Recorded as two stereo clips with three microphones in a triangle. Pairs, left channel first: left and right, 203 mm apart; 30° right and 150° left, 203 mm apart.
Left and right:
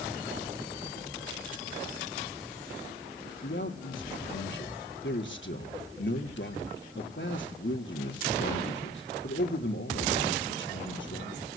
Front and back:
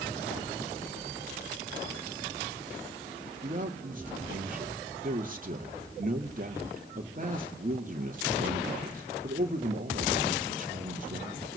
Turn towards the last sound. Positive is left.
turn(degrees=105)